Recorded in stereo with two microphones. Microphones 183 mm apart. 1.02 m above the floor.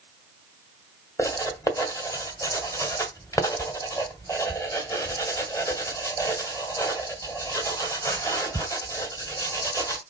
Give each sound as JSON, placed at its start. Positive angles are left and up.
{"t": 1.2, "sound": "writing", "side_deg": 15, "distance_m": 2.0}